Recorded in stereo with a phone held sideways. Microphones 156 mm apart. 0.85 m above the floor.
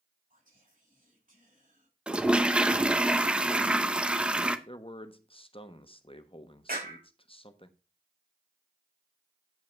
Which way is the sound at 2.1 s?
5° right (ahead or behind).